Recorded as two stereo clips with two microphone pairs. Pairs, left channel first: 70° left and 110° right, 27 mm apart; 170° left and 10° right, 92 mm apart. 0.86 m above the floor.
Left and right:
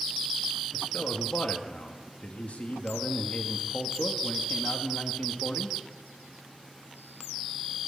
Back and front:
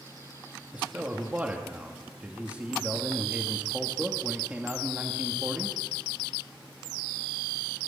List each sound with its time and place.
0.7 s a man speaking: 65° left, 1.3 m